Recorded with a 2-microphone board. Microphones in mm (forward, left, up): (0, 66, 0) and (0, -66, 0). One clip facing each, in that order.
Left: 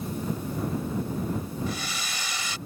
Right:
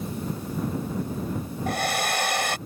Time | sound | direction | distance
1.7 | a hair dryer | 60° right (ahead or behind) | ?